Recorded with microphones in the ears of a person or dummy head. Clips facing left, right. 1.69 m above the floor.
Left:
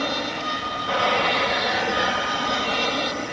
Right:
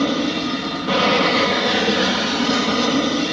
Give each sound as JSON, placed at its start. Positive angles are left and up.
{"t": 0.0, "sound": "an aircraft", "side_deg": -50}